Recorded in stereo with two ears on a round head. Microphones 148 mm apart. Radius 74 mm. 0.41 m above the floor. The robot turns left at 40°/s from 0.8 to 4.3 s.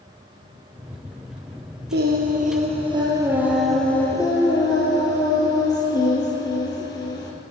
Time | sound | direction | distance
1.9 | singing | 110° right | 6 m